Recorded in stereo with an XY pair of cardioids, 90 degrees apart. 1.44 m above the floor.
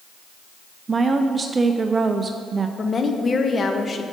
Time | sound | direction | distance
0.9 | a woman speaking | 35° right | 0.5 m
2.8 | a woman speaking | 40° left | 1.0 m